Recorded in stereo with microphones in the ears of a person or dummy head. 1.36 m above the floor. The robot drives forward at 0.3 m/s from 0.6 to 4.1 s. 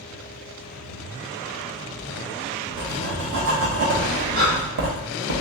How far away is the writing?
About 0.9 m.